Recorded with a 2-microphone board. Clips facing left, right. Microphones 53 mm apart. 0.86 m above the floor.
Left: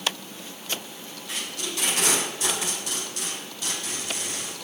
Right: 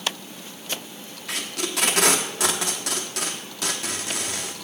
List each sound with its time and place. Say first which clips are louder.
1.3 s tape being pulled: right 4 dB; 75° right (ahead or behind), 1.1 m